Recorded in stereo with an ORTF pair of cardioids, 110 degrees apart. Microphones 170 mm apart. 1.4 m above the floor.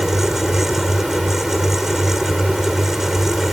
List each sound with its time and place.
0.0 s a fan: straight ahead